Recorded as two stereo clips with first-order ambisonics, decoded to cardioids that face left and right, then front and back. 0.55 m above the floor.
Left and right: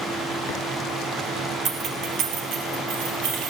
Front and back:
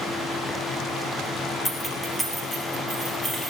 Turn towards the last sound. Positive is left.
turn(degrees=-95)